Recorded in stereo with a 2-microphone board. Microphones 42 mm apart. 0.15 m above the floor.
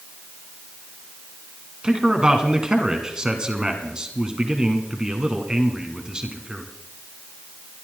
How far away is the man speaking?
About 1.4 m.